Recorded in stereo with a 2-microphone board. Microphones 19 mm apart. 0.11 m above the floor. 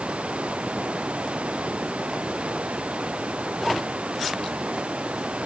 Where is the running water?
85° right.